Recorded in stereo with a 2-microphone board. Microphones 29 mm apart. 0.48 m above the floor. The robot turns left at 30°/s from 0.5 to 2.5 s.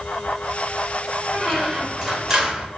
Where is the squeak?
10° left, 0.7 m; by 2.7 s 25° right, 0.7 m.